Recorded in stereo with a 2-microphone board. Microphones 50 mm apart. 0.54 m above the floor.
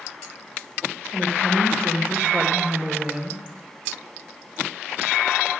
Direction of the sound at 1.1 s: 55° right (ahead or behind).